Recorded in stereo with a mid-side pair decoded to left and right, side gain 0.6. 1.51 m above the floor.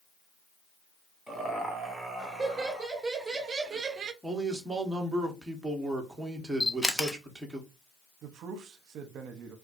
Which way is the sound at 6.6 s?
5° left.